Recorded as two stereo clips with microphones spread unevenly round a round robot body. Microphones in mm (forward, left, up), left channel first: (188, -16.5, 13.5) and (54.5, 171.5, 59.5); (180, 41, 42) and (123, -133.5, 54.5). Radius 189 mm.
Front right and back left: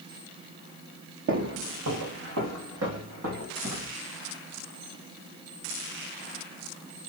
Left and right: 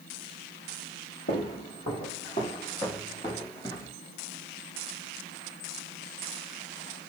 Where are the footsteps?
105° left, 0.7 m; by 3.9 s 155° left, 2 m.